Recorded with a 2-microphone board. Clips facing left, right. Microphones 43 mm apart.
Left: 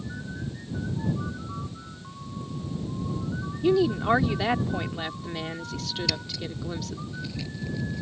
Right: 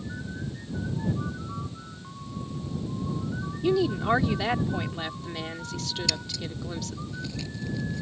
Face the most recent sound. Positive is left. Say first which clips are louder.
# left 1 dB
turn(degrees=5)  # may be behind; listen again after turning